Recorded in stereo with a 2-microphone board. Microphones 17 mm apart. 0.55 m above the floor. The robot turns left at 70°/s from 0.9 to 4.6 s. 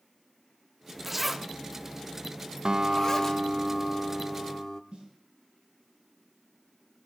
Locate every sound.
1.0 s a zipper: 20° right (ahead or behind), 0.8 m; by 3.4 s 20° left (ahead or behind), 0.8 m
2.6 s a guitar: 90° right, 0.7 m; by 4.8 s 135° left, 0.7 m
4.9 s a snare drum: 75° right (ahead or behind), 5.5 m